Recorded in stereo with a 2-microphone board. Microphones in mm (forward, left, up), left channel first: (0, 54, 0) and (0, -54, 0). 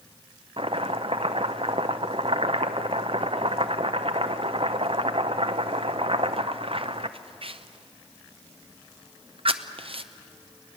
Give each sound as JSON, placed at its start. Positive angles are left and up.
{"t": 0.6, "sound": "chopping", "side_deg": -55, "distance_m": 0.7}